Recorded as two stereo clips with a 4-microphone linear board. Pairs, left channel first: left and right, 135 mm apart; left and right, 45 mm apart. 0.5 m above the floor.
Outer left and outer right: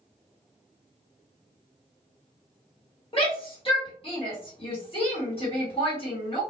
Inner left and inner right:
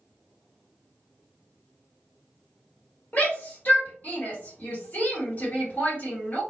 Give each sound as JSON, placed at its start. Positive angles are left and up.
{"t": 3.1, "sound": "a shout", "side_deg": 40, "distance_m": 1.6}